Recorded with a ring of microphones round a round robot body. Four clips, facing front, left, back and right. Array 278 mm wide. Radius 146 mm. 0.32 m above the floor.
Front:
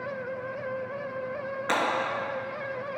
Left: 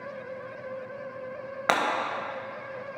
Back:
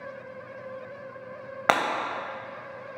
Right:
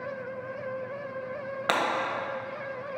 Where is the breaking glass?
170° left, 1.0 m.